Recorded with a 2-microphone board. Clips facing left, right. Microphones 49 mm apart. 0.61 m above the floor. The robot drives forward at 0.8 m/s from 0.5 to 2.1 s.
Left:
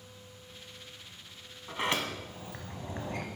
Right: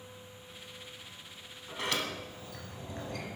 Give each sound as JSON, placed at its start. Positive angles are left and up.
{"t": 1.7, "sound": "a sliding door", "side_deg": 30, "distance_m": 1.1}